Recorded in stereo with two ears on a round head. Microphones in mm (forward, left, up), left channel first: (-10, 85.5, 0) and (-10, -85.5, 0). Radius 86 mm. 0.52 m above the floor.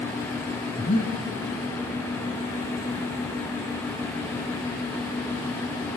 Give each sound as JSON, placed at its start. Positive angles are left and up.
{"t": 0.8, "sound": "breathing", "side_deg": 45, "distance_m": 1.2}